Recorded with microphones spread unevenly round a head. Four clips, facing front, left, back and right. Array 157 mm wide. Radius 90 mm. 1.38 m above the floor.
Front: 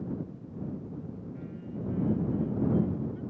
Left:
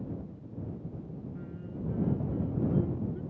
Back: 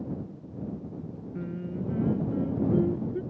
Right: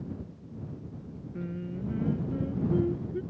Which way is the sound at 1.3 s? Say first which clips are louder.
Right 4 dB, back 9 dB; 145° right.